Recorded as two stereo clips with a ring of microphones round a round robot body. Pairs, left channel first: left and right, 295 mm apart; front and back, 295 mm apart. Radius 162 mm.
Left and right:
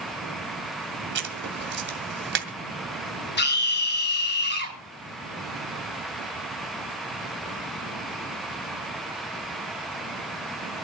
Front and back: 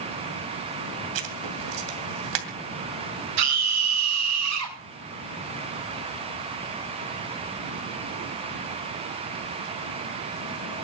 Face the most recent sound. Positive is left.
turn(degrees=145)